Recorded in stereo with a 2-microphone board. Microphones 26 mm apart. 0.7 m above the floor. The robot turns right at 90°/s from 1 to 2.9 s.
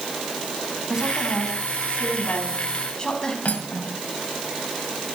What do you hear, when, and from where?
0.9 s a woman speaking: 20° right, 4.5 m; by 3.4 s 150° left, 4.5 m
3.5 s cutlery clinking: 70° left (ahead or behind), 2 m